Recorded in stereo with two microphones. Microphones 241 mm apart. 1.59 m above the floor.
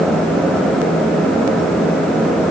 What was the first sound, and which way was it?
Only background noise.